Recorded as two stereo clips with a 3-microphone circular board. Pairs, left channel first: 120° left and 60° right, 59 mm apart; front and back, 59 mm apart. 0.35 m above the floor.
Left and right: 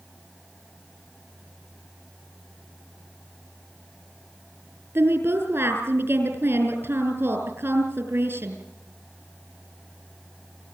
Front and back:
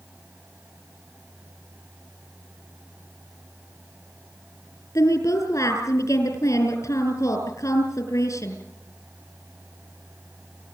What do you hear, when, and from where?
5.0 s a woman speaking: 10° right, 5.5 m